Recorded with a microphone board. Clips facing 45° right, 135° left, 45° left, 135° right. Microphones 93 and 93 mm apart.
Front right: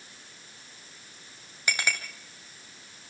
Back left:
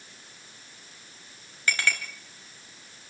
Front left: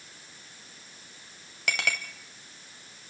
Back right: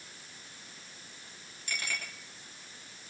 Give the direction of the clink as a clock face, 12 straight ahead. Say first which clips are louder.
Back left 2 dB, front left 8 dB; 11 o'clock.